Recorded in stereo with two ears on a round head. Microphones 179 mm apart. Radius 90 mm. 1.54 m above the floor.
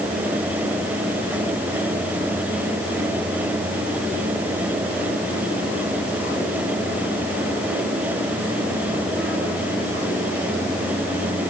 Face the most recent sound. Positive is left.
No sound to turn to.